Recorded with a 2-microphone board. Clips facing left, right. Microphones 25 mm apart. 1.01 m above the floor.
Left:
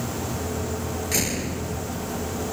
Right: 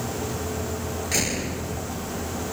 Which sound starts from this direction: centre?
A door slam, at 1.1 s.